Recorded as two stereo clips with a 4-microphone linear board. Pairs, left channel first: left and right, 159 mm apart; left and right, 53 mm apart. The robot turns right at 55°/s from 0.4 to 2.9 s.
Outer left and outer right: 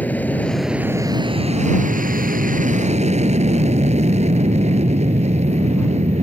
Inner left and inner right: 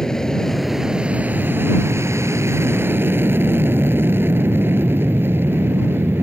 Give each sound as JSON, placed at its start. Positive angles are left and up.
{"t": 0.0, "sound": "an aircraft", "azimuth_deg": 170}